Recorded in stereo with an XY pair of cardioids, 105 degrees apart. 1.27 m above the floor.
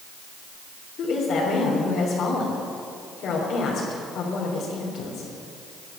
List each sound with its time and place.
1.0 s a woman speaking: 65° left, 3.5 m